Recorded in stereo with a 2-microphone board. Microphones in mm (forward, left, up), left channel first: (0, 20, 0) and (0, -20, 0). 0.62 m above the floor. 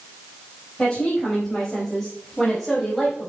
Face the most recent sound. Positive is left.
turn(degrees=5)  # may be behind; listen again after turning